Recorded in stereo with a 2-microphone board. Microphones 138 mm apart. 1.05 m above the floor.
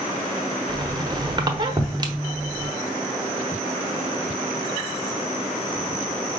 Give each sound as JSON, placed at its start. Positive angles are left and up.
{"t": 0.7, "sound": "a squeak", "side_deg": -30, "distance_m": 0.7}